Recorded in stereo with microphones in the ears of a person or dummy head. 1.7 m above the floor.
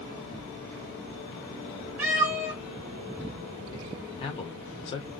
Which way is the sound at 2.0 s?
10° right (ahead or behind).